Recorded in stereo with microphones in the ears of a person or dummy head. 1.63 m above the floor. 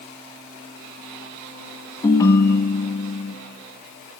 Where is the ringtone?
15° left (ahead or behind), 1.3 m.